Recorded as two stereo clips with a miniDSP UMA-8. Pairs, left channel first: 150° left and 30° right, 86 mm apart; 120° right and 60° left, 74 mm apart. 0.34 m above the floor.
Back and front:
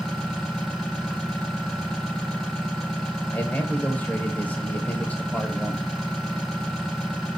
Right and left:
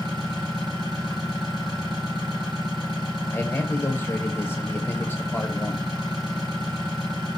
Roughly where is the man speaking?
Behind right.